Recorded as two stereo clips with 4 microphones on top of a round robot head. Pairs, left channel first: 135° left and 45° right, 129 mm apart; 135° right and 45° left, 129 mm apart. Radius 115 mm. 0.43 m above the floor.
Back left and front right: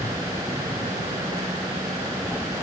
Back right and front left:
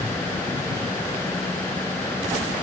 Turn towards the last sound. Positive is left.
No sound to turn to.